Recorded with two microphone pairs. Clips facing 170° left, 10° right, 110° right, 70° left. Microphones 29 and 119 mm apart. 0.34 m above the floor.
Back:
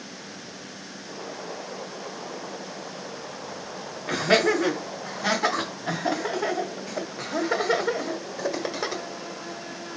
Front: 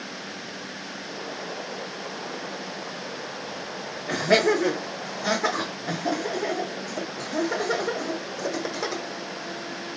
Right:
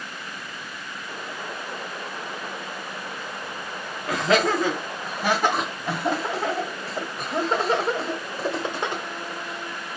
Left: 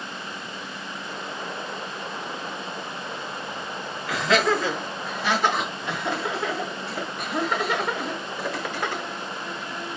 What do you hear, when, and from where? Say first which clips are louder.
4.1 s laughter: even, right 1 dB; 150° right, 3.5 m; by 9.0 s 120° right, 1.1 m